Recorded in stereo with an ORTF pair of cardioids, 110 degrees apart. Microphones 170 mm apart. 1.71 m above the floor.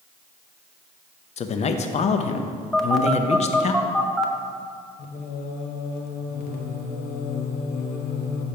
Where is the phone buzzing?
Straight ahead, 0.7 m.